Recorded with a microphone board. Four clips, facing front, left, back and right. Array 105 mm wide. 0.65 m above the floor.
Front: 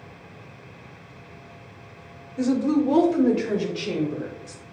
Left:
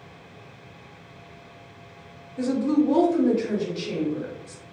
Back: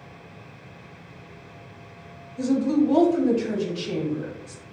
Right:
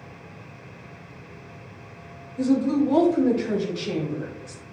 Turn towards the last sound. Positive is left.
turn(degrees=-15)